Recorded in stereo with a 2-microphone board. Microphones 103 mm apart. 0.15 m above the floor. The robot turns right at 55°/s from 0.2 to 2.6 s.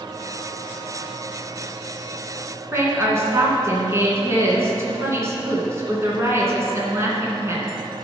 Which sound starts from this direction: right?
A woman speaking, at 2.7 s.